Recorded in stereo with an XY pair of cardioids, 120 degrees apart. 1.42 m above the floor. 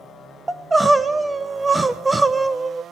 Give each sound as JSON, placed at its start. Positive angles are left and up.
{"t": 0.5, "sound": "crying", "azimuth_deg": -15, "distance_m": 1.1}